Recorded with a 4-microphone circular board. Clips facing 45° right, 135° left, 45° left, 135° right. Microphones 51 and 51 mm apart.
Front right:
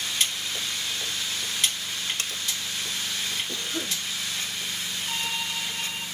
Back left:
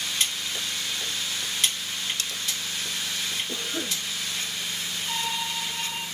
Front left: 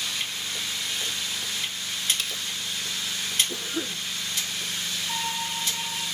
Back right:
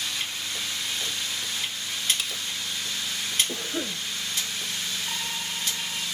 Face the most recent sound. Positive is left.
turn(degrees=-130)